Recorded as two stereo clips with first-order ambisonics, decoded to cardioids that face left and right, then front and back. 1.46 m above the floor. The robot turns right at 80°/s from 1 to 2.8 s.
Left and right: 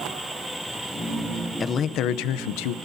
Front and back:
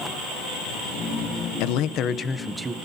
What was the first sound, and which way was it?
A man speaking, 15° left.